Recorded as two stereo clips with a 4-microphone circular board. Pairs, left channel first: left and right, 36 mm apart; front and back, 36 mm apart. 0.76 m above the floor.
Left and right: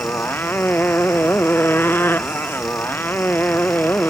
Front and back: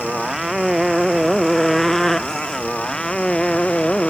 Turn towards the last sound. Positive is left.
turn(degrees=65)